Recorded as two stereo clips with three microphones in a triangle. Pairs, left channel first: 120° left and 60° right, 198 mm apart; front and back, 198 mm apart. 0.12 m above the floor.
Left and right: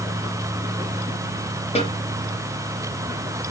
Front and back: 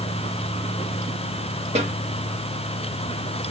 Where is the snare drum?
155° left, 2 m.